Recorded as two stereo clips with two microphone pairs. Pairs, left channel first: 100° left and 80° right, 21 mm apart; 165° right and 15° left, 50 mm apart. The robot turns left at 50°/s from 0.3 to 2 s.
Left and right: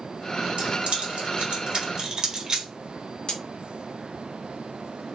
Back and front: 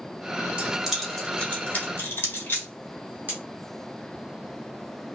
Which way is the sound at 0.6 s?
50° right.